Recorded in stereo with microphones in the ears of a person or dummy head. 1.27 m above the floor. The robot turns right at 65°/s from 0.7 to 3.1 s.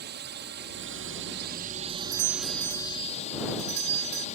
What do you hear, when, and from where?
0.0 s a drone: 50° right (ahead or behind); by 4.4 s 40° left (ahead or behind)
1.9 s a doorbell: 120° right; by 4.3 s 40° right